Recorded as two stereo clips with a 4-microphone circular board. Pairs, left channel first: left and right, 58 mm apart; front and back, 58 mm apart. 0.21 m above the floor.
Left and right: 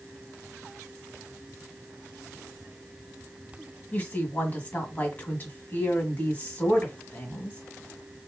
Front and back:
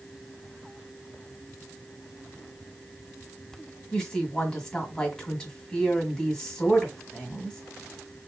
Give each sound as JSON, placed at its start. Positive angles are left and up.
{"t": 3.9, "sound": "a woman speaking", "azimuth_deg": 65, "distance_m": 1.6}